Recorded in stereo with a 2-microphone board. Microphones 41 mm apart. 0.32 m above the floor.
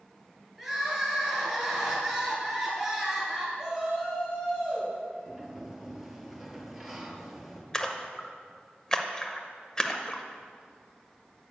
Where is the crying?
5° right (ahead or behind), 2.5 m.